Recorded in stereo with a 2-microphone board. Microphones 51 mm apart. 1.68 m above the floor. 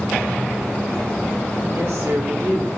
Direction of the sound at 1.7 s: 60° right (ahead or behind).